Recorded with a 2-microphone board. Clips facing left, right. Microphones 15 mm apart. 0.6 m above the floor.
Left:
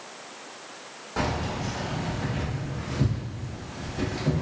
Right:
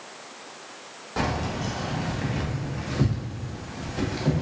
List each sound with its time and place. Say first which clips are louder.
1.2 s keys jangling: right 1 dB; 15° right (ahead or behind), 0.9 m; by 4.4 s 60° right (ahead or behind), 1.4 m